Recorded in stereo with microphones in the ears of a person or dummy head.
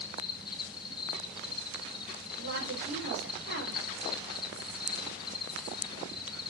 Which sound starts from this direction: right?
A woman speaking, at 2.4 s.